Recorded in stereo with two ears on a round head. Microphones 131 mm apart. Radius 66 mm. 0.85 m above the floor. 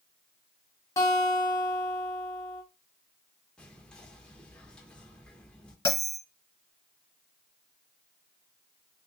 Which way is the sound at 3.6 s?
5° left (ahead or behind).